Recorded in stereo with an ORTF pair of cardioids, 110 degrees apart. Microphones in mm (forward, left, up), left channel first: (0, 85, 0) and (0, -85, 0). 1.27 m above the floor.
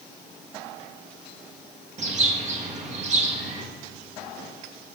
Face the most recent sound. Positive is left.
turn(degrees=-40)